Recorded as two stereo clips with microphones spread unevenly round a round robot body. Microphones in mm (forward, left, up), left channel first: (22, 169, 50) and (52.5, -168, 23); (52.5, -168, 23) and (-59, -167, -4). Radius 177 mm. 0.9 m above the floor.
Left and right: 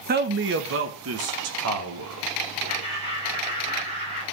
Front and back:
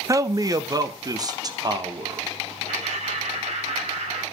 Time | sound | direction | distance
0.1 | a man speaking | 140° right | 0.9 m
2.7 | laughter | 160° right | 5.5 m